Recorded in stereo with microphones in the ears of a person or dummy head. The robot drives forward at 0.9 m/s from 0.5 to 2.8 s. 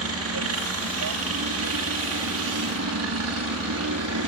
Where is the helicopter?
65° right (ahead or behind).